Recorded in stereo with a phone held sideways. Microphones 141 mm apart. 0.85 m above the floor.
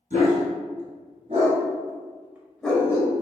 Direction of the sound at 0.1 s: 70° right (ahead or behind).